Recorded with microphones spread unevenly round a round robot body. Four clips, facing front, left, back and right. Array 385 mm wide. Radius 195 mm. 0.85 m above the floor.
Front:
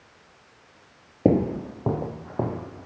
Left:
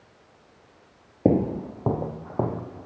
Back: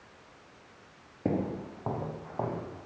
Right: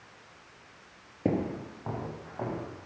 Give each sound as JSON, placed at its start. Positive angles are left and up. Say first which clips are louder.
{"t": 1.2, "sound": "footsteps", "louder": "left 8 dB, front 10 dB", "azimuth_deg": 30, "distance_m": 1.1}